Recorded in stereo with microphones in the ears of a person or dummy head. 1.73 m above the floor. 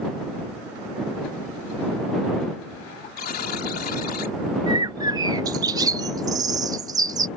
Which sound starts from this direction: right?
A bird, at 4.7 s.